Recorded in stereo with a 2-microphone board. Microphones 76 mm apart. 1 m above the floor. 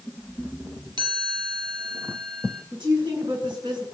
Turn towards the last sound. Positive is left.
turn(degrees=-80)